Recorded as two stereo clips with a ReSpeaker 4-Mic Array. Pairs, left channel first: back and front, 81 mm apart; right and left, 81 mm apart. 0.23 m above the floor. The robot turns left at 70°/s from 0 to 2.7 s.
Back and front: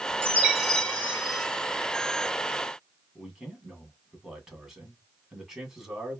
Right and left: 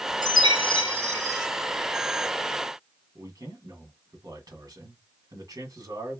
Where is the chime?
60° right, 2 m; by 1.5 s 150° right, 2 m.